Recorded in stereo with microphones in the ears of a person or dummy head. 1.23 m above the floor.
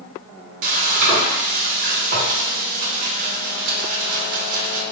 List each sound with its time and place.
0.6 s frying: 45° right (ahead or behind), 0.6 m